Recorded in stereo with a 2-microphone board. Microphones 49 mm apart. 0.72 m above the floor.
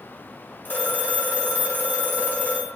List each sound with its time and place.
0.7 s a phone ringing: 35° left (ahead or behind), 0.9 m